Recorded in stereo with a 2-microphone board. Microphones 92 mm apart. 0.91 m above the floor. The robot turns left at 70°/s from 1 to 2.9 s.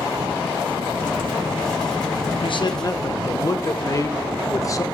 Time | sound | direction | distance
2.4 | a man speaking | 75° left | 0.7 m